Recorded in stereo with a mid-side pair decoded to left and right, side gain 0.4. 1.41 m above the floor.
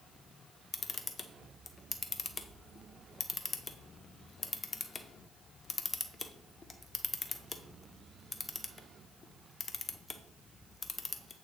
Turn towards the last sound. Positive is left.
turn(degrees=35)